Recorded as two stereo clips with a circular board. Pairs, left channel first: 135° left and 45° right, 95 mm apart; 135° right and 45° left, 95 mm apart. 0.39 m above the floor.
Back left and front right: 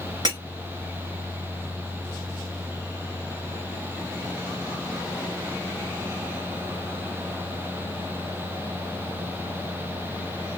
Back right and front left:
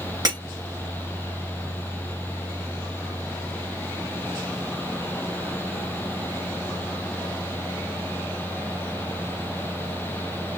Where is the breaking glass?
Straight ahead, 2.5 m.